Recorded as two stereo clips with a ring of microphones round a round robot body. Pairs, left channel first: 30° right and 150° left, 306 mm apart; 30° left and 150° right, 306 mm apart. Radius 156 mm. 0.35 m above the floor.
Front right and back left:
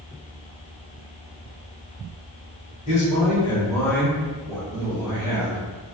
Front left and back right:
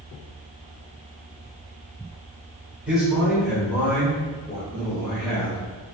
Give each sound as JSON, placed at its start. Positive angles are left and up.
{"t": 2.9, "sound": "a man speaking", "azimuth_deg": -70, "distance_m": 1.4}